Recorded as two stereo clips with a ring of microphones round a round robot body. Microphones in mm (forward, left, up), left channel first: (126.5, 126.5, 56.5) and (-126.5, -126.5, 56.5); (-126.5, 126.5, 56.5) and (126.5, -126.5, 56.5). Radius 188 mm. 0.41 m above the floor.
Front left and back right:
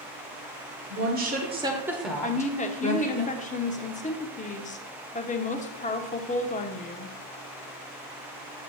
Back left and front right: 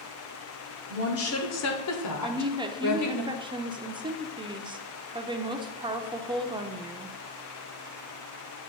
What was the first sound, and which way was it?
A woman speaking, straight behind.